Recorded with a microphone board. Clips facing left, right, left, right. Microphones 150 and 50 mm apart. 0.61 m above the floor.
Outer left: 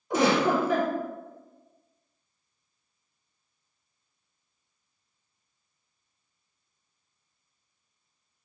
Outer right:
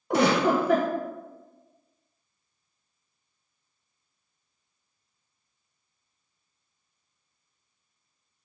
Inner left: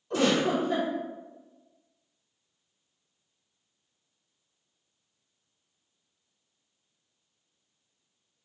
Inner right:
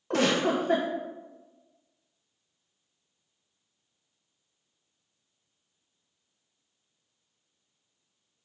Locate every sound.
0.1 s a giggle: 65° right (ahead or behind), 1.0 m